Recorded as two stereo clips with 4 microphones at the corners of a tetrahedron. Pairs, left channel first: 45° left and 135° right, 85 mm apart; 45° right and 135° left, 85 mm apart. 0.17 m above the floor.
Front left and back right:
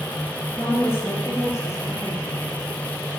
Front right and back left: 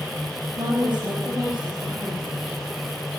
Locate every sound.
0.6 s a woman speaking: 125° left, 4 m; by 2.5 s 115° left, 3 m